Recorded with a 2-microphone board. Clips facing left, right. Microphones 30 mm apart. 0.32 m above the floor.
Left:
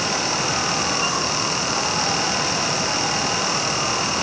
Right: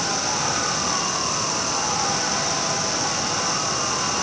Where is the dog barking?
I don't hear a dog barking.